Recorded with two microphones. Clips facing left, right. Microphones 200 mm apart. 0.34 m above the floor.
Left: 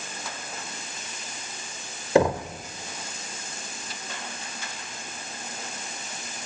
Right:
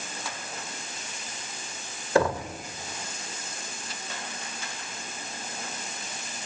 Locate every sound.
2.1 s knocking: 20° left (ahead or behind), 0.6 m